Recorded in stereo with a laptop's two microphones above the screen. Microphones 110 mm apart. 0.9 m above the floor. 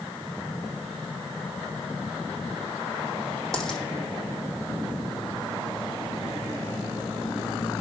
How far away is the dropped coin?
About 4 m.